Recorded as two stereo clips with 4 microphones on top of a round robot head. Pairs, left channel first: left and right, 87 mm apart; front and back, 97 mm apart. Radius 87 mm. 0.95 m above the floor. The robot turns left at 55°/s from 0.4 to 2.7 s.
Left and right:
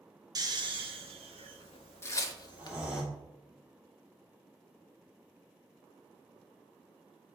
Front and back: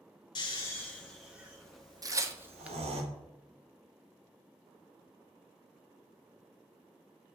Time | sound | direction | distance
0.3 | snoring | 45° right | 1.0 m
2.0 | tearing paper | 140° left | 0.8 m